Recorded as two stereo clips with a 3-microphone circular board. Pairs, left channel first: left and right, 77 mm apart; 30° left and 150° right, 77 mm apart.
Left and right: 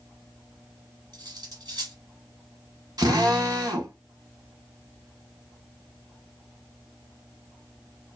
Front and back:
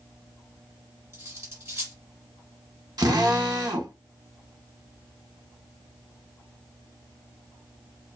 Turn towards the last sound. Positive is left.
turn(degrees=-120)